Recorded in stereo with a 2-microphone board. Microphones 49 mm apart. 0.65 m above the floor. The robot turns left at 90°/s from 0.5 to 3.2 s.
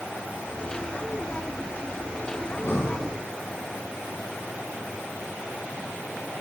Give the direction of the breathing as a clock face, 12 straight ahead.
8 o'clock.